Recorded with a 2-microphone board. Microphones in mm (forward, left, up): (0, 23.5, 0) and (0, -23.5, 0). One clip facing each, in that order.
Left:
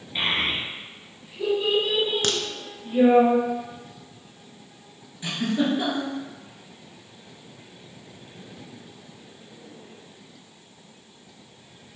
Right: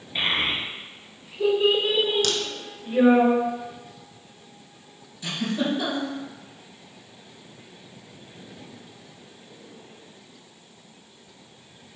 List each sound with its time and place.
0.1 s a child speaking: 5° right (ahead or behind), 1.6 m; by 3.2 s 40° right (ahead or behind), 1.1 m
2.2 s a crack: 45° left (ahead or behind), 0.6 m
5.2 s a giggle: 25° left (ahead or behind), 1.9 m